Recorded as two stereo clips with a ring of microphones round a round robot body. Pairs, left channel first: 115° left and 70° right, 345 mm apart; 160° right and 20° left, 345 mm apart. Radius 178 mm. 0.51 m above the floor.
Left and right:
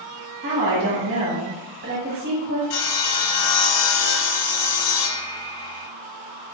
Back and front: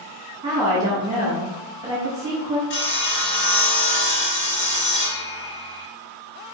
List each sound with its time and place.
0.4 s a woman speaking: 50° right, 1.4 m
2.7 s sawing: 145° left, 0.7 m